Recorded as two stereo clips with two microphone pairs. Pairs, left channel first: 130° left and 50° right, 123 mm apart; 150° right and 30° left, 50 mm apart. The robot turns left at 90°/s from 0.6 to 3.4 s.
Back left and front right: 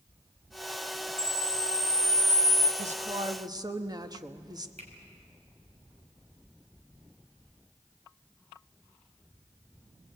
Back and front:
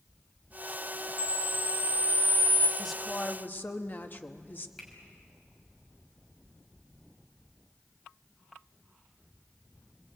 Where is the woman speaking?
50° right, 1.2 m; by 4.7 s 105° right, 1.2 m.